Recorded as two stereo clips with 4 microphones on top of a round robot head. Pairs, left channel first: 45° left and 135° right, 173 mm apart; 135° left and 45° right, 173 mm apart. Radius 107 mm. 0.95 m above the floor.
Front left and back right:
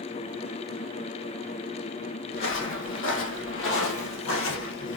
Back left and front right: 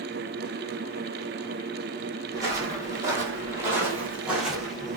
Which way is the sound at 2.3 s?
30° left.